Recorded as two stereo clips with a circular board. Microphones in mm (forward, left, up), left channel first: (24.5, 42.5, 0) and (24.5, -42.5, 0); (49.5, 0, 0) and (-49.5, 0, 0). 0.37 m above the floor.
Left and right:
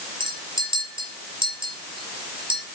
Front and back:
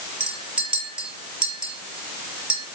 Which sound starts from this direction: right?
A clink, at 0.2 s.